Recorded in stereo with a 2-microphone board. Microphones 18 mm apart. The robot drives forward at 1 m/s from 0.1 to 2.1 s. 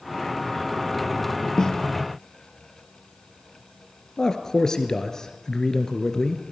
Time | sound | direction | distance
1.6 | a snare drum | 35° left (ahead or behind) | 0.6 m
4.2 | a man speaking | 35° left (ahead or behind) | 1.9 m